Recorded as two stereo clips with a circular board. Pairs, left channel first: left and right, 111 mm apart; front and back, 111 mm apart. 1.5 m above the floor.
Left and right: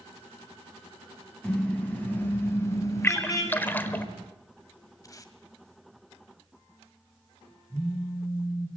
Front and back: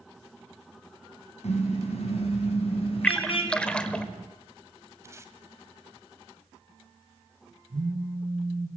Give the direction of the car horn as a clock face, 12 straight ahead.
12 o'clock.